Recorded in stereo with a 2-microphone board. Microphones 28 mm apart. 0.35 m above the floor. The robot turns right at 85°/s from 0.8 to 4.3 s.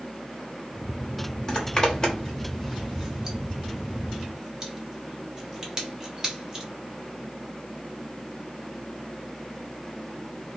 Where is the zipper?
25° left (ahead or behind), 0.9 m; by 6.7 s 25° right (ahead or behind), 0.9 m.